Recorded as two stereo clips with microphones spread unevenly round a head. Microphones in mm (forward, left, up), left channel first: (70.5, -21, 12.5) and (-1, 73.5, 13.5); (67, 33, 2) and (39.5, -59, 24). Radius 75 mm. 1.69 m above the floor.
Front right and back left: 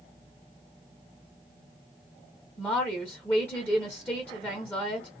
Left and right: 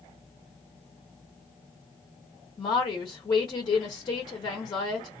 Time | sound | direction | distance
2.6 | a woman speaking | 20° left | 0.9 m